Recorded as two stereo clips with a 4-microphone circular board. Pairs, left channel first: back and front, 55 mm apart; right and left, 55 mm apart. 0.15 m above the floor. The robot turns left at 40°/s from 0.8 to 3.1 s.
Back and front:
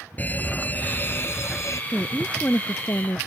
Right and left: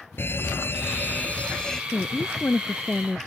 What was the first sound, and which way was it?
A fire alarm, 125° right.